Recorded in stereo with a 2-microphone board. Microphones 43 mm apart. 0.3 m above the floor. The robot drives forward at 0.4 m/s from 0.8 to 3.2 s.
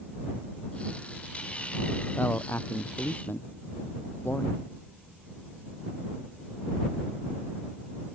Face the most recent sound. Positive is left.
turn(degrees=55)  # may be behind; listen again after turning